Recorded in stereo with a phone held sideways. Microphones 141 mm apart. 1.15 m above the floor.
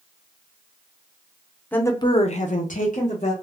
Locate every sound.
1.7 s a woman speaking: 10° left (ahead or behind), 0.6 m; by 3.3 s 55° left (ahead or behind), 1.0 m